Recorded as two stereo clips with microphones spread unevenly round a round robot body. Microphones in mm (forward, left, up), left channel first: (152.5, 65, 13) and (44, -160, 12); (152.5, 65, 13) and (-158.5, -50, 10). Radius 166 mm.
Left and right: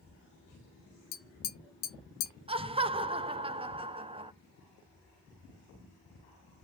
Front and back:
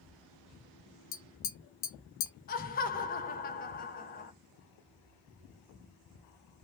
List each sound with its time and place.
1.1 s tapping: 65° left, 0.7 m
2.5 s laughter: 45° right, 0.5 m